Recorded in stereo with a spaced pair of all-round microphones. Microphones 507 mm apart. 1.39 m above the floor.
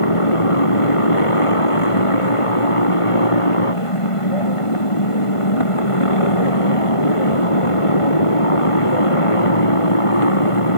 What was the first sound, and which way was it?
A motorcycle, 85° left.